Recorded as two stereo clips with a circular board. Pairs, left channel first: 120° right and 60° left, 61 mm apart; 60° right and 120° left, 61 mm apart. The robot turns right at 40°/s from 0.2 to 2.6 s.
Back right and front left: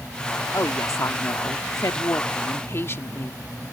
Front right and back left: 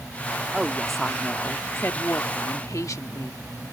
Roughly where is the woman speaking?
Behind.